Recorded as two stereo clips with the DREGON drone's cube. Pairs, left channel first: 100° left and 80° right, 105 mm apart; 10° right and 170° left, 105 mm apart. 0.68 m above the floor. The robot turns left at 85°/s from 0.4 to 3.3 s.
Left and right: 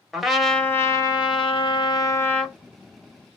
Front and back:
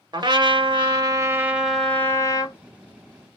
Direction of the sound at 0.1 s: 165° right.